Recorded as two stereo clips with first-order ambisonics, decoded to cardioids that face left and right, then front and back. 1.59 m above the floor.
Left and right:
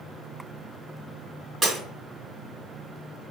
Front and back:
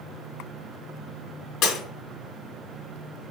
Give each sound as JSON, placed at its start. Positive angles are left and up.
{"t": 1.6, "sound": "breaking glass", "azimuth_deg": -10, "distance_m": 2.0}